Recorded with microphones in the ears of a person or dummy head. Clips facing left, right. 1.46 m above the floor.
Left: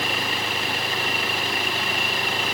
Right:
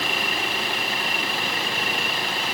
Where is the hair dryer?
I don't hear a hair dryer.